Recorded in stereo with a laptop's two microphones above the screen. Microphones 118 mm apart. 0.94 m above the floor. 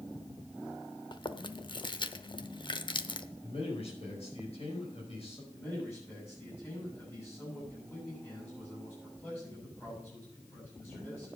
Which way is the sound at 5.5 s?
20° left (ahead or behind).